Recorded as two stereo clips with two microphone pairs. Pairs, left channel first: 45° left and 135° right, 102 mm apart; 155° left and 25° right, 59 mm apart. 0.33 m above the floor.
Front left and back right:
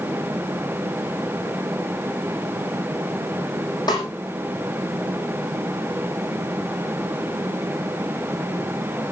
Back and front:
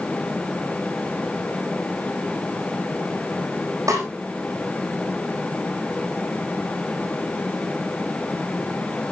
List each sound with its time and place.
3.9 s a snare drum: 5° right, 7.5 m